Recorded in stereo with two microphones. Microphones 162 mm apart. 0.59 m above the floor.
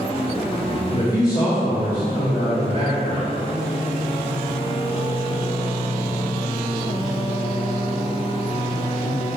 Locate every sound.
0.9 s a man speaking: 30° left (ahead or behind), 1.5 m